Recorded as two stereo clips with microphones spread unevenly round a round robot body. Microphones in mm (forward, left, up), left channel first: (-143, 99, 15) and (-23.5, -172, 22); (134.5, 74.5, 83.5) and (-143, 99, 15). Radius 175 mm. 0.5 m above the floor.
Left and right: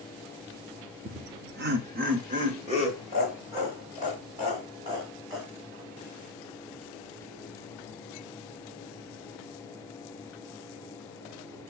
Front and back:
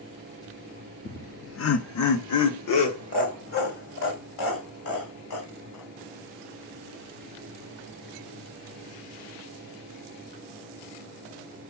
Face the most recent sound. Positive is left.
turn(degrees=15)